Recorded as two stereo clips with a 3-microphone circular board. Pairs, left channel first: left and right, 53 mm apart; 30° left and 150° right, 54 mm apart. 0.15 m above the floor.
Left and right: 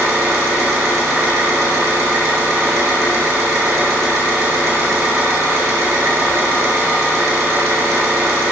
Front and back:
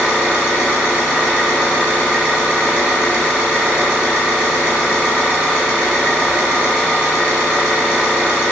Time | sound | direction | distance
0.0 | an engine running | 80° right | 0.9 m